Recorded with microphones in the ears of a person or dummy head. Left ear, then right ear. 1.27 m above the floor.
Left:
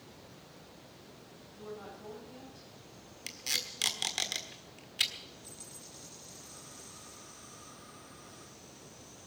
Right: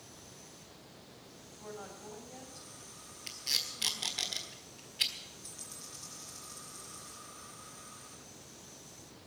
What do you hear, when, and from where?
1.5 s a woman speaking: 15° right (ahead or behind), 6 m; by 4.3 s 10° left (ahead or behind), 6.5 m
3.3 s tape being pulled: 35° left (ahead or behind), 1.5 m
5.4 s a dropped coin: centre (ahead or behind), 3.5 m